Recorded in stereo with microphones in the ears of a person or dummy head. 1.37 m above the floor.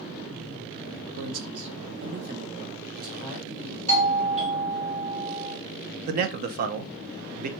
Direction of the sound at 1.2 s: 70° right (ahead or behind).